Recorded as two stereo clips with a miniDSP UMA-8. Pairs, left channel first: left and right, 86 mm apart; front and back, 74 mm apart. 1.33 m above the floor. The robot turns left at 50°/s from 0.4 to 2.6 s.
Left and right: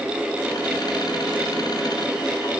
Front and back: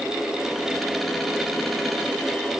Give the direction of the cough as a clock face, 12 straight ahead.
No cough in this recording.